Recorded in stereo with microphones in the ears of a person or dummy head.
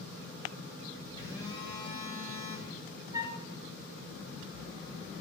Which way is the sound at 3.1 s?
15° right (ahead or behind).